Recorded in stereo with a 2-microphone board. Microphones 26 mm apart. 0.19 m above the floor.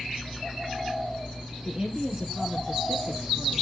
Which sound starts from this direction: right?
A woman speaking, at 1.6 s.